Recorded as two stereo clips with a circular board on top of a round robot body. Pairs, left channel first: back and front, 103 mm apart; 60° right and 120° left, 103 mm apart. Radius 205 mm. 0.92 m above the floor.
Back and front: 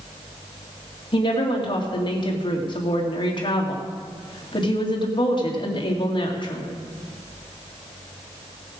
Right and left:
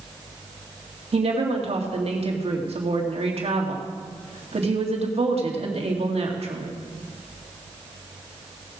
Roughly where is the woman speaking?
Behind left.